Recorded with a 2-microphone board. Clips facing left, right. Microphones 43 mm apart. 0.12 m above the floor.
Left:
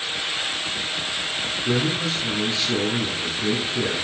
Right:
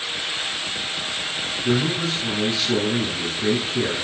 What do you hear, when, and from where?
1.6 s a man speaking: 25° right (ahead or behind), 1.2 m